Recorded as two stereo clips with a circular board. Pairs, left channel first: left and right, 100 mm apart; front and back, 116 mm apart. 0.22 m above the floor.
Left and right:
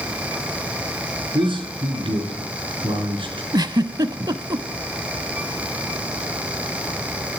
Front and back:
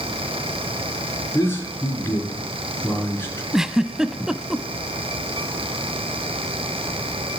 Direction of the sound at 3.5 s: 95° right.